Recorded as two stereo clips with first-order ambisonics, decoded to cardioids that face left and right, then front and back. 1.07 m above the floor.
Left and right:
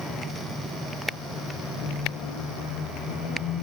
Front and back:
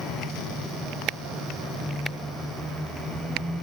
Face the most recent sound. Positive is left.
turn(degrees=85)